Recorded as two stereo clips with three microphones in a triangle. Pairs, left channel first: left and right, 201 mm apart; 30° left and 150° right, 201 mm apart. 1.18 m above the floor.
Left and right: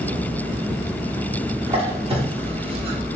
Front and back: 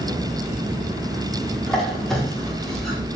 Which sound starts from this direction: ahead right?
A squeak, at 1.7 s.